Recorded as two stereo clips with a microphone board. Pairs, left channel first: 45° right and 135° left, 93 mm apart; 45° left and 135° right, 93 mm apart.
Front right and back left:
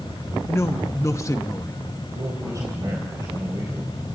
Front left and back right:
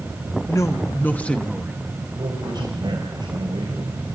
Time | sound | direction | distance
0.5 | a woman speaking | 5° left | 1.4 m
2.1 | a man speaking | 175° right | 4 m